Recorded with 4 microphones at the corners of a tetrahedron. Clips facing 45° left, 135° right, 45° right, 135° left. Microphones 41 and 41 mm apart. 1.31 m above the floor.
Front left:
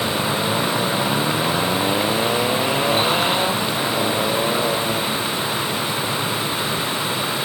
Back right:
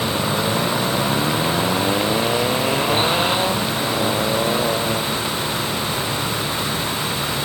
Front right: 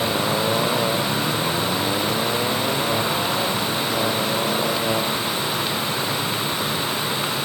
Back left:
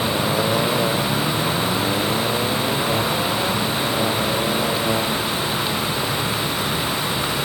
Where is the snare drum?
I don't hear a snare drum.